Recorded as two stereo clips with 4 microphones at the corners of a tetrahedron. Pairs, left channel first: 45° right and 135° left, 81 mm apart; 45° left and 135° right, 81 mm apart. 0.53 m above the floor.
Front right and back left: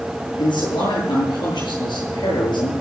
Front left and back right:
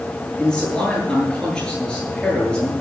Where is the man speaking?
35° right, 9 m.